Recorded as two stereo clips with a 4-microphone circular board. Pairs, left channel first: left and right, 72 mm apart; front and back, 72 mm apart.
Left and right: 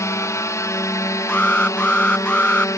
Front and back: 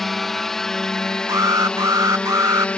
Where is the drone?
85° left; by 2.8 s 70° left.